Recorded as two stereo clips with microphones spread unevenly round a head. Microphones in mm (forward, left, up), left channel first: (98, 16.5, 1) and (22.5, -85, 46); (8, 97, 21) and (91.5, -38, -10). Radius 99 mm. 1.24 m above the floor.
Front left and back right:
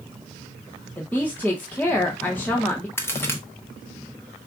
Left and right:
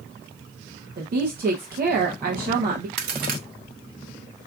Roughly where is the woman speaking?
Ahead right.